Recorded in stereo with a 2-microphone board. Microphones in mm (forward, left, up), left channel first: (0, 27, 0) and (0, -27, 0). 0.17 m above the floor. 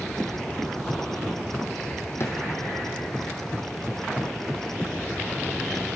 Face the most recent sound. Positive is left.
turn(degrees=60)  # may be behind; listen again after turning